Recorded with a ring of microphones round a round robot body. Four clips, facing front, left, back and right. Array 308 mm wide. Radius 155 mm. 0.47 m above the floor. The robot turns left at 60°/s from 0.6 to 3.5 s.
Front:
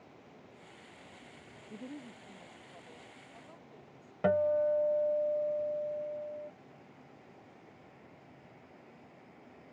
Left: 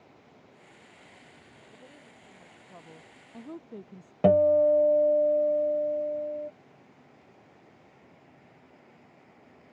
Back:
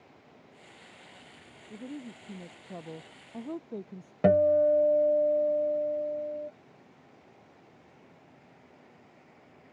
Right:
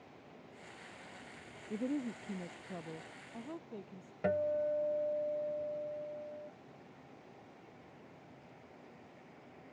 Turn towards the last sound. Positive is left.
turn(degrees=125)